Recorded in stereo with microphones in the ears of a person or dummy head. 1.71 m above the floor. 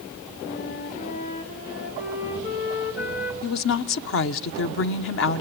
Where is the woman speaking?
65° left (ahead or behind), 1.0 m.